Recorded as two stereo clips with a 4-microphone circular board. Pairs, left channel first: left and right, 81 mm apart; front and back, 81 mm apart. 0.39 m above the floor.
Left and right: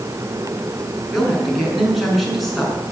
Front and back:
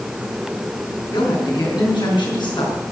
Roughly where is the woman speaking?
Ahead.